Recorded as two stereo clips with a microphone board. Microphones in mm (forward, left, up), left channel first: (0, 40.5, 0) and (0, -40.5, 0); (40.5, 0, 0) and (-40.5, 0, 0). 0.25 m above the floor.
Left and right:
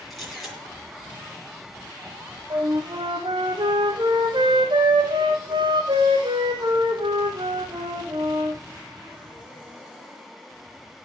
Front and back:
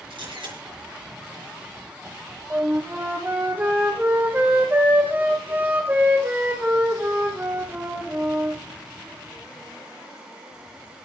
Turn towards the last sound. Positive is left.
turn(degrees=-110)